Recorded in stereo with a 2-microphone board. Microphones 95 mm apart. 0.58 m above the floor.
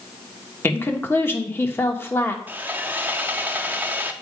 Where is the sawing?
20° right (ahead or behind), 0.7 m.